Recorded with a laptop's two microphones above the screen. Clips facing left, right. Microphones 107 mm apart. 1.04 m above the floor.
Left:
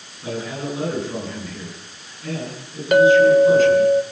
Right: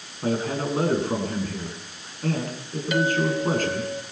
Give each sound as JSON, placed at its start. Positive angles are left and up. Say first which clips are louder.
{"t": 0.2, "sound": "a man speaking", "louder": "right 3 dB", "side_deg": -50, "distance_m": 9.5}
{"t": 2.9, "sound": "a clink", "louder": "left 12 dB", "side_deg": 55, "distance_m": 2.5}